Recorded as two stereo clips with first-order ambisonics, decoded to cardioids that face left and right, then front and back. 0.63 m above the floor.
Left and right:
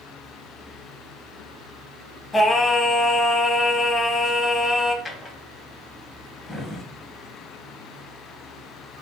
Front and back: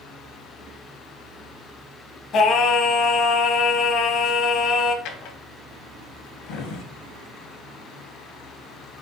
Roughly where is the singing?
Ahead.